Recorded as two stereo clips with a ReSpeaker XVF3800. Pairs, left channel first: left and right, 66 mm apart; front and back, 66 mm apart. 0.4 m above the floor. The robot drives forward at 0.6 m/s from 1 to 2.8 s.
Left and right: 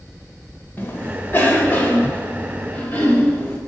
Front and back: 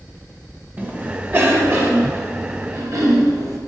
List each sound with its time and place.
0.8 s a cough: 130° left, 1.7 m; by 3.6 s 155° left, 2.5 m